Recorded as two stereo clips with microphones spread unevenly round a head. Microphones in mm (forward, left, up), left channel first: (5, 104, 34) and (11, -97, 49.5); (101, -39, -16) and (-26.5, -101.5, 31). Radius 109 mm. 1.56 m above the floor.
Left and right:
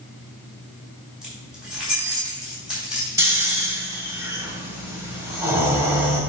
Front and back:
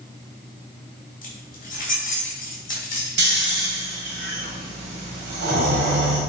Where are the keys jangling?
Straight ahead, 3.5 m.